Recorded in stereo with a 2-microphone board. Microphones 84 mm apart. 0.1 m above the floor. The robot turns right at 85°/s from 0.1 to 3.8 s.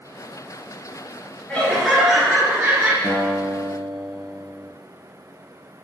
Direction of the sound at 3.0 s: 120° left.